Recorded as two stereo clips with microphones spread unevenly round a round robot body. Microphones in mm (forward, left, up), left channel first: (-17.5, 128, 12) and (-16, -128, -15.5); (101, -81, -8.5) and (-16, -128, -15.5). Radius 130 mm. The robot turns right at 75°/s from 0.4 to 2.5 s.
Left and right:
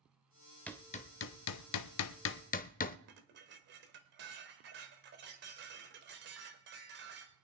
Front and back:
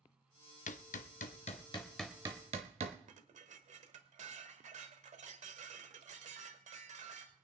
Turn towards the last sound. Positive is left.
turn(degrees=-135)